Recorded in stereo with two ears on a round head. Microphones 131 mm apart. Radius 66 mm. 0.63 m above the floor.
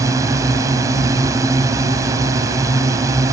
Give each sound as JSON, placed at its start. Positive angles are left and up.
{"t": 0.0, "sound": "a drone", "side_deg": -20}